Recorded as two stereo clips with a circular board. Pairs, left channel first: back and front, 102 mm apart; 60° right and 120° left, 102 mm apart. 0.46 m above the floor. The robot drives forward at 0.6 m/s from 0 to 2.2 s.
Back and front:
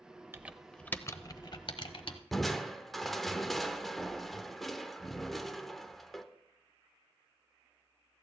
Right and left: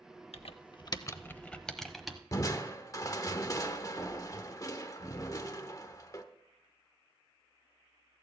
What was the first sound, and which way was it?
Typing on a keyboard, 70° right.